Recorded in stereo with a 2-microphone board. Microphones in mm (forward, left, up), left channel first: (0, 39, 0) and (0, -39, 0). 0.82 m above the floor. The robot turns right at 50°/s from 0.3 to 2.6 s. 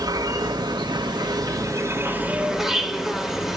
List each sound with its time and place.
0.0 s an insect: 120° right, 2 m; by 3.6 s 5° right, 2 m